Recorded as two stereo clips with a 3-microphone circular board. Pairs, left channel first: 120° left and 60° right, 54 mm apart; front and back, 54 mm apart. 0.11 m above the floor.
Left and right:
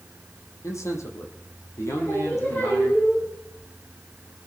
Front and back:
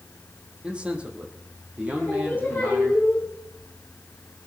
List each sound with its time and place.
0.6 s a man speaking: 110° left, 4.5 m; by 3.0 s 125° left, 5.5 m
2.0 s singing: 70° left, 10 m